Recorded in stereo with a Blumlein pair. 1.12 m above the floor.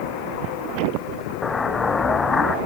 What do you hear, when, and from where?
1.4 s an explosion: 15° left, 0.8 m